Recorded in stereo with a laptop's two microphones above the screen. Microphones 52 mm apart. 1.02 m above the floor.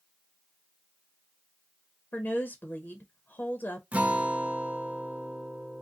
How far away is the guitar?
About 0.6 m.